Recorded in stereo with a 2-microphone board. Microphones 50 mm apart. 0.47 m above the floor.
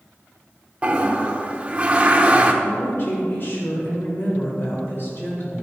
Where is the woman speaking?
50° left (ahead or behind), 2.0 m.